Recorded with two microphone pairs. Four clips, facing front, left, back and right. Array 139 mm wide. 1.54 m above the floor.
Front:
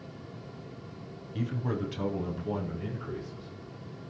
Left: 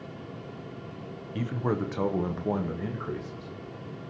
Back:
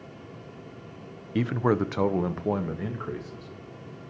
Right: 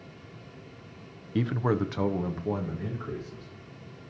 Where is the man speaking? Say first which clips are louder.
Right 3 dB, back 9 dB; 160° right, 0.7 m; by 3.5 s 150° left, 2.5 m.